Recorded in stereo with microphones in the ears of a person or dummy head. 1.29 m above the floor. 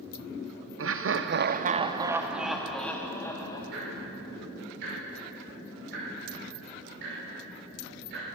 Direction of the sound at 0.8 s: 70° right (ahead or behind).